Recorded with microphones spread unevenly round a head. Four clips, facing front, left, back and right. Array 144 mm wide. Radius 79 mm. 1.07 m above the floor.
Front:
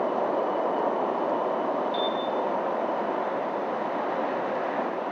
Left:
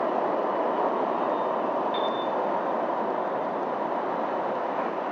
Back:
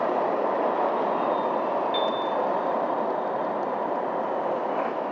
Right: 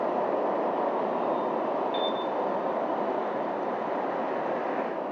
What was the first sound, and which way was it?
A piano, 130° left.